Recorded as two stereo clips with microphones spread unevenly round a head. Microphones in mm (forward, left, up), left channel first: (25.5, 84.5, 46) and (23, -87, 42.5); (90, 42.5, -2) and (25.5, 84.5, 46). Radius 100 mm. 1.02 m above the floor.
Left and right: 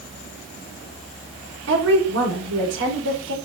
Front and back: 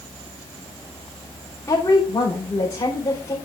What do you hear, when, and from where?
1.7 s a woman speaking: 100° right, 4 m